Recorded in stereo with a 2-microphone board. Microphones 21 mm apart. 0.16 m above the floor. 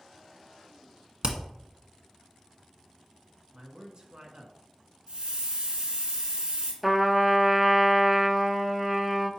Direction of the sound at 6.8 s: 10° right (ahead or behind).